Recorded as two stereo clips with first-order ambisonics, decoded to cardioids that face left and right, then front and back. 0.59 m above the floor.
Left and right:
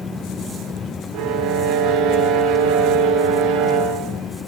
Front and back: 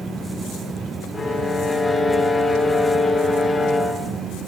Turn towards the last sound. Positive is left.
turn(degrees=-80)